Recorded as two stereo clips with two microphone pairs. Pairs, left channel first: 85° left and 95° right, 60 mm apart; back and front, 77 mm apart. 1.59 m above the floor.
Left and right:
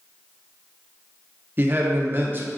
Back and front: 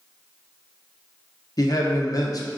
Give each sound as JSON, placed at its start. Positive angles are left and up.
{"t": 1.6, "sound": "a man speaking", "azimuth_deg": -145, "distance_m": 0.7}